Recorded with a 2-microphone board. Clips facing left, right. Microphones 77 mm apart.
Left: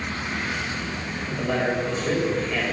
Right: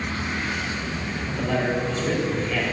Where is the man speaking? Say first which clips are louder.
Even; 10° left (ahead or behind), 4.5 m.